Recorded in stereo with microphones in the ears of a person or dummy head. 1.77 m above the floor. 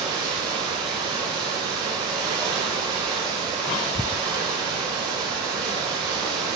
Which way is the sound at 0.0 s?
25° right (ahead or behind).